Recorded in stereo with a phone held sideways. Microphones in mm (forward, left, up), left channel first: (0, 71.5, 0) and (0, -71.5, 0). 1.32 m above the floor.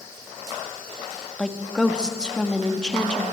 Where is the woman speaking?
5° left (ahead or behind), 1.7 m.